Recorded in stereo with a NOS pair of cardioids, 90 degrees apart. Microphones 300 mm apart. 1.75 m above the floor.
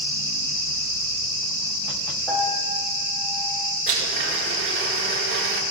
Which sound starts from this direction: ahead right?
A blender, at 3.9 s.